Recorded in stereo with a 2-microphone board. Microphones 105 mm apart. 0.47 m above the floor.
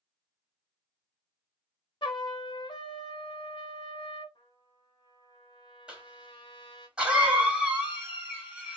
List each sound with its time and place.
2.0 s a trumpet: 50° left (ahead or behind), 1.1 m
4.3 s a trumpet: 50° left (ahead or behind), 1.5 m
5.9 s a cough: 10° right (ahead or behind), 3 m